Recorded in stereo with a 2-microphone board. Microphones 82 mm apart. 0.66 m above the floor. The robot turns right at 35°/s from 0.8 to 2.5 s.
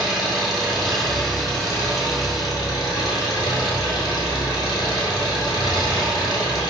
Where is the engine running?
Straight ahead, 1.6 m; by 6.7 s 60° left, 1.6 m.